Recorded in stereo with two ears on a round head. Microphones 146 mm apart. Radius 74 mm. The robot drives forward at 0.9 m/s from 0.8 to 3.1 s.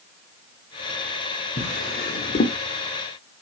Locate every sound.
1.6 s a drawer: 40° left (ahead or behind), 0.8 m; by 2.6 s 45° left (ahead or behind), 0.8 m